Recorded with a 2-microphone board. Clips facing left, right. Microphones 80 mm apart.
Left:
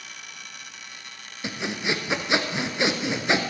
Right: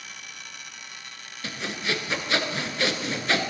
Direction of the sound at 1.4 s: 20° left (ahead or behind).